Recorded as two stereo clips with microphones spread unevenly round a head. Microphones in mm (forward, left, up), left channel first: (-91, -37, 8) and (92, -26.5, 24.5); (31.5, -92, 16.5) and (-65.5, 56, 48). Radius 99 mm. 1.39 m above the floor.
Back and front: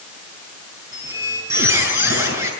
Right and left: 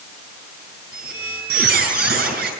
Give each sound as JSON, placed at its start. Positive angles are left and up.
{"t": 0.9, "sound": "a squeak", "azimuth_deg": 80, "distance_m": 7.0}